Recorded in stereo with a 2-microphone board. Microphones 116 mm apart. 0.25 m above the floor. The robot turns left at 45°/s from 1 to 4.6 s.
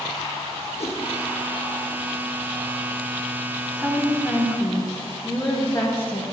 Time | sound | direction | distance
0.8 | a whoosh | 65° left (ahead or behind) | 3 m
3.8 | a woman speaking | 170° right | 1.5 m